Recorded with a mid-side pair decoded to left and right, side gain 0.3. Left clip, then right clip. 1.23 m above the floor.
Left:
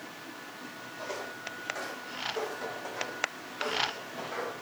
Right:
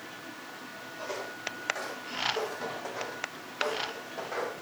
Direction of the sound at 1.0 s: 10° right.